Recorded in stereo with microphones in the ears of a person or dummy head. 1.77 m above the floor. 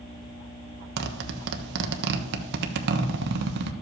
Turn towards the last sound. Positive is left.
turn(degrees=-65)  # may be behind; listen again after turning